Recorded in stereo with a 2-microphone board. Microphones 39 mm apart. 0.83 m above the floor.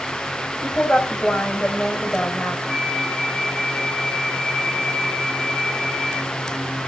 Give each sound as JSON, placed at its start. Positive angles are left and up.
{"t": 0.6, "sound": "a woman speaking", "side_deg": 30, "distance_m": 4.0}
{"t": 2.7, "sound": "a flute", "side_deg": 20, "distance_m": 7.0}